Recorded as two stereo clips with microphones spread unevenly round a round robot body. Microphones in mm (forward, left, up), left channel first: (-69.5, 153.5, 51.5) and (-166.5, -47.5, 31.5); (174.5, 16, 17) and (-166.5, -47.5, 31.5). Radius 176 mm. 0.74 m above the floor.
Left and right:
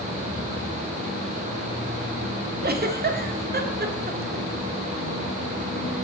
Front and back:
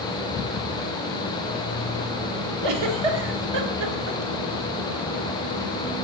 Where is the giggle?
165° right, 1.3 m.